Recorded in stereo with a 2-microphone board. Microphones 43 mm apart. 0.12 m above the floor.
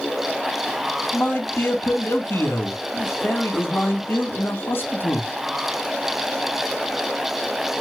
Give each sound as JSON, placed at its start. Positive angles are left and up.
{"t": 1.1, "sound": "a man speaking", "side_deg": 60, "distance_m": 3.5}